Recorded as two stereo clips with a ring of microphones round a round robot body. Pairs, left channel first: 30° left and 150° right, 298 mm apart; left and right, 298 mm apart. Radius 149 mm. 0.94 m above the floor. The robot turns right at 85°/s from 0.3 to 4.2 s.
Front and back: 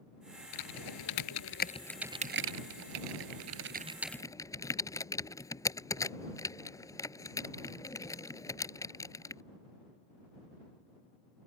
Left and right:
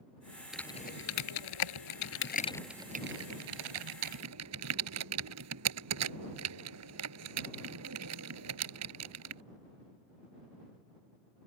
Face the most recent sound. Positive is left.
turn(degrees=-50)